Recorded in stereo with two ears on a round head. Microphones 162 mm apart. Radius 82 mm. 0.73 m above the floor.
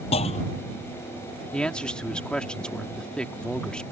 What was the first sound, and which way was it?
A clunk, 30° left (ahead or behind).